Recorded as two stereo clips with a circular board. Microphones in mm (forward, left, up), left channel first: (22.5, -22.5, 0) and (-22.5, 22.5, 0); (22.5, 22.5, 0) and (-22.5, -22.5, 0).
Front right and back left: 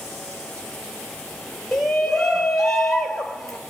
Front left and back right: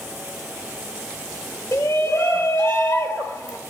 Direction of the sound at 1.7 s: 35° left.